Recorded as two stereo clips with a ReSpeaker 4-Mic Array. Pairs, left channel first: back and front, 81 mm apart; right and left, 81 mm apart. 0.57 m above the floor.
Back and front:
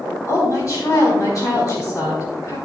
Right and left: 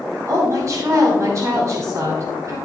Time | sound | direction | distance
0.3 | a woman speaking | 135° left | 3 m